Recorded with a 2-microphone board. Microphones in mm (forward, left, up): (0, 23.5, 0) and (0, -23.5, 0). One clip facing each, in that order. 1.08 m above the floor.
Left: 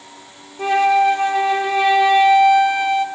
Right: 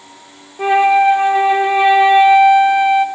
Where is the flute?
20° right (ahead or behind), 0.9 m.